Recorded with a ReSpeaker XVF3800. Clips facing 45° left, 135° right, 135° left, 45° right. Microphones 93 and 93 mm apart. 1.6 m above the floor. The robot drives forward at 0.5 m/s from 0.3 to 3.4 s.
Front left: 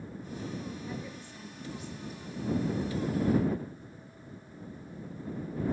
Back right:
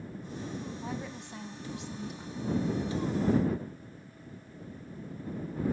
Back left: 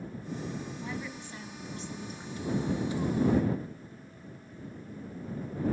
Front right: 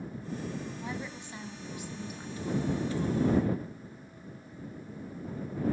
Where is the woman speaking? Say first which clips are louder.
Back right 2 dB, even; 110° right, 1.8 m; by 2.5 s 130° right, 2.5 m.